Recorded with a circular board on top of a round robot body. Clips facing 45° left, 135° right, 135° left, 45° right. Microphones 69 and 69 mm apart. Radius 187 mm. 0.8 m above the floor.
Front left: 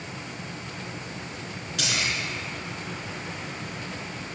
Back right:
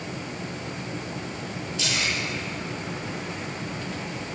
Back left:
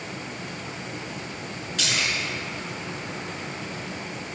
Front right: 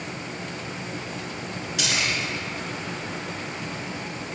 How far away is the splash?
About 4.5 m.